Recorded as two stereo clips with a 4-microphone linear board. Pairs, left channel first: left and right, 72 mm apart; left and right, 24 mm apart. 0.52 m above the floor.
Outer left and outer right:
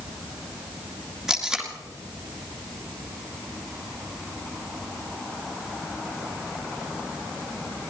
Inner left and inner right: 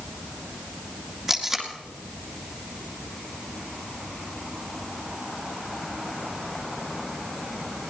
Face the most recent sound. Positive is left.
turn(degrees=-5)  # may be behind; listen again after turning